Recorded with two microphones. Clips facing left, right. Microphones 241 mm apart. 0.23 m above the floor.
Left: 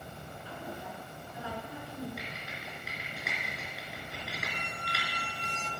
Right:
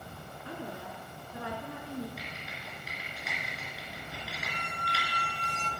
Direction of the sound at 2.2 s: 65° left (ahead or behind).